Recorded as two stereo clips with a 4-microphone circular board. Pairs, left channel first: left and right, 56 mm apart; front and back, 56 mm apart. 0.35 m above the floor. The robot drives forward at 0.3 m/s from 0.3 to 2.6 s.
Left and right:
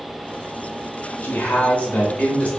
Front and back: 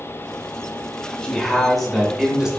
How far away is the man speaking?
About 0.9 m.